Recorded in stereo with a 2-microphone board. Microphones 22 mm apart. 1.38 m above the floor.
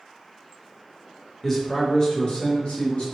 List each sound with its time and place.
1.4 s a man speaking: 15° left (ahead or behind), 1.0 m; by 3.1 s 75° left (ahead or behind), 0.9 m